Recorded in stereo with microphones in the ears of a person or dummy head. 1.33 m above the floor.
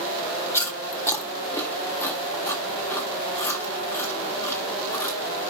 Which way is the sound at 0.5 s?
15° left (ahead or behind).